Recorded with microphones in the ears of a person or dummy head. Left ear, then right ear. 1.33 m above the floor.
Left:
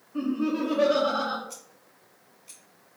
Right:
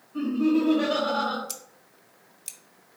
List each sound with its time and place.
0.1 s laughter: 20° left (ahead or behind), 1.5 m
1.5 s scissors: 70° right (ahead or behind), 0.9 m